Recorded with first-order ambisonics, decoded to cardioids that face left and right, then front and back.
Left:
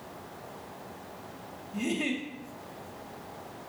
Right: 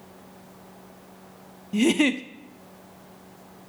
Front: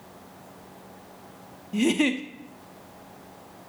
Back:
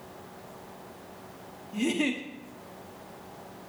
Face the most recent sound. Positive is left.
turn(degrees=-70)